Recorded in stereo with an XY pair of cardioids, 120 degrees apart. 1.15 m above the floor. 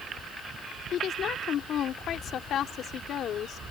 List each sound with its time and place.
0.9 s a woman speaking: 60° left